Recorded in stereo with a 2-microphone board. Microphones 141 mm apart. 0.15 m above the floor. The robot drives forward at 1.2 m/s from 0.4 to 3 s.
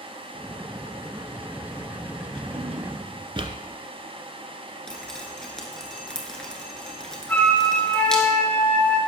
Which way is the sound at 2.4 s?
40° right (ahead or behind).